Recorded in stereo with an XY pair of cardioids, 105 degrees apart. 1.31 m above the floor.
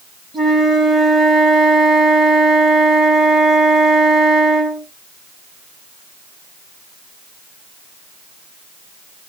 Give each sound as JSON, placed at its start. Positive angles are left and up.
{"t": 0.3, "sound": "a flute", "azimuth_deg": -30, "distance_m": 7.0}